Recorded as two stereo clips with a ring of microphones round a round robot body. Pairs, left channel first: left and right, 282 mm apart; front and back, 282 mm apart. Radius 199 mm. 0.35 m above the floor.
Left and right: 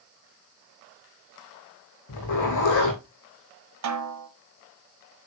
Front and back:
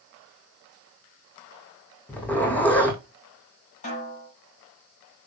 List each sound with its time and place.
2.1 s a zipper: 85° left, 3.5 m
3.8 s a snare drum: 70° right, 2.5 m